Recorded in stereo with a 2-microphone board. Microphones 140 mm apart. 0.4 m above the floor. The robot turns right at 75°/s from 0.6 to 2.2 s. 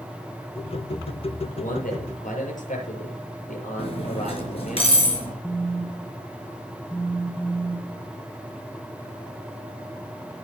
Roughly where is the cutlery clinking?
Left.